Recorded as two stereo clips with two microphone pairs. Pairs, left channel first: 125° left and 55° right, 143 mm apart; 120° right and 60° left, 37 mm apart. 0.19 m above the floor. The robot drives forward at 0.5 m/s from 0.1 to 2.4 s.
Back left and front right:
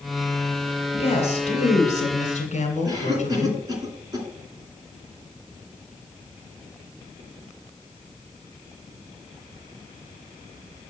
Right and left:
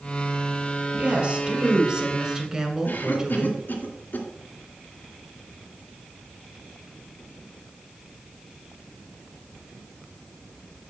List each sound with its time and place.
0.9 s a woman speaking: 100° left, 1.4 m; by 3.6 s 130° left, 1.7 m
2.9 s a cough: 110° right, 2.5 m